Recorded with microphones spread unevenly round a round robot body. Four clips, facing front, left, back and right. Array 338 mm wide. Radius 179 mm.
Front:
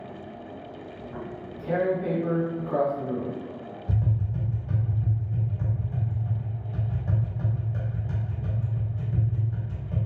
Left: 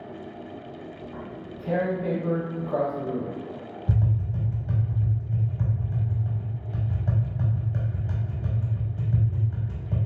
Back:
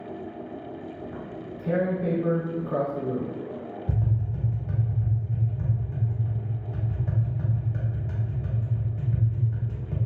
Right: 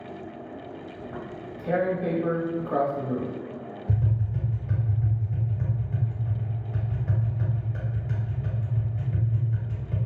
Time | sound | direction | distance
1.0 | tearing paper | 145° right | 0.6 m
3.9 | tapping | 110° left | 0.6 m